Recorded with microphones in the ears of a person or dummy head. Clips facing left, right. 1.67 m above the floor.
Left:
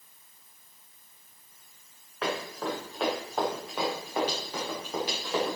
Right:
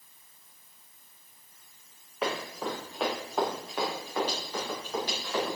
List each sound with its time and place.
2.2 s running footsteps: 10° right (ahead or behind), 6.5 m; by 5.6 s 15° left (ahead or behind), 8.5 m